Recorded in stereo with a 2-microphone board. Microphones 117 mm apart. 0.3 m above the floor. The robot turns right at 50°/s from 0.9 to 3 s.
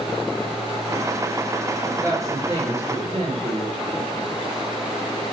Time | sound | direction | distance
1.8 | a woman speaking | 170° right | 8 m